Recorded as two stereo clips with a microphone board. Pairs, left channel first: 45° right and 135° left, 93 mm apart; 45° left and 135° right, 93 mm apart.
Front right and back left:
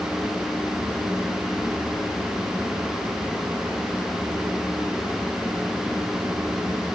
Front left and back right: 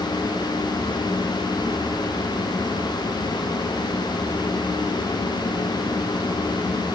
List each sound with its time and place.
Only background noise.